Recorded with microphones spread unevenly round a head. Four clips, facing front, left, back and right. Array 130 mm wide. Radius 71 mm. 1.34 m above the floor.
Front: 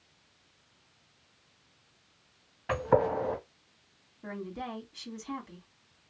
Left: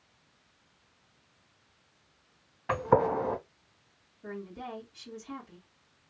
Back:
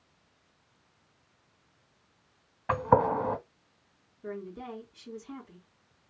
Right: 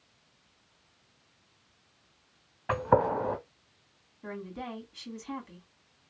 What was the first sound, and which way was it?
A gunshot, 170° right.